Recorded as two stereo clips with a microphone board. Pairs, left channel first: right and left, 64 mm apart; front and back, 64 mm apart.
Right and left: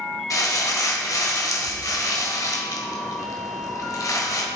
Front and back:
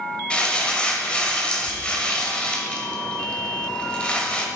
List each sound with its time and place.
0.3 s crumpling: 70° right, 1.5 m